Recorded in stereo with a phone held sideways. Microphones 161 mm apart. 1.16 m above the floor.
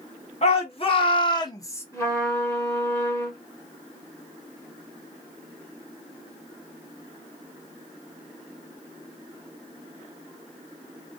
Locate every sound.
0.4 s a shout: 45° left (ahead or behind), 1.4 m; by 1.9 s 15° left (ahead or behind), 0.7 m
1.9 s a trumpet: 20° left (ahead or behind), 1.8 m